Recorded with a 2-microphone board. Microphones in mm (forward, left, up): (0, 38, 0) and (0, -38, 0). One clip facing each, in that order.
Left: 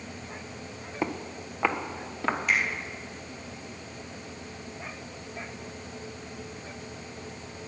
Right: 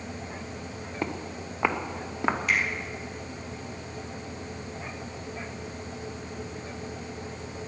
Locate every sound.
1.0 s footsteps: 5° left (ahead or behind), 0.9 m; by 2.4 s 15° right (ahead or behind), 1.4 m
2.5 s a finger snap: 5° left (ahead or behind), 3.5 m